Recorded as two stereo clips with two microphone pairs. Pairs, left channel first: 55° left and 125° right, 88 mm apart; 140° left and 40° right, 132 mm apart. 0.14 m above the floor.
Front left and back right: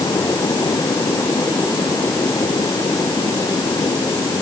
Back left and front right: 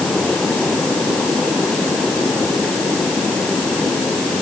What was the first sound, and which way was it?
Only background noise.